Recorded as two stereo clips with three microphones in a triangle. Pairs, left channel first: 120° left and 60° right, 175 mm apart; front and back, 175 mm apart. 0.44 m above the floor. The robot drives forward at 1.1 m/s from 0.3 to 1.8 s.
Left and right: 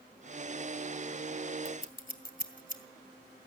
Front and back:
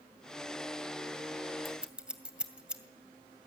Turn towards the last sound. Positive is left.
turn(degrees=95)